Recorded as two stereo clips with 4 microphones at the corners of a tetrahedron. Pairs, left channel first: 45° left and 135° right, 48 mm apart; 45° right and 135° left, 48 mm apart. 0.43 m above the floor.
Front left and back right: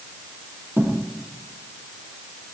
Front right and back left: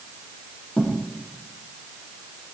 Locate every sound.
0.8 s a thud: 100° right, 7.5 m